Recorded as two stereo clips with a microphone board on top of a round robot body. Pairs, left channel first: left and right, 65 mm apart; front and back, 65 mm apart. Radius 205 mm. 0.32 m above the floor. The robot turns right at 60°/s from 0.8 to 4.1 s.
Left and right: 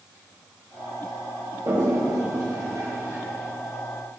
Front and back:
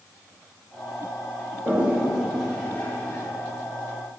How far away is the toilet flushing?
About 2.5 m.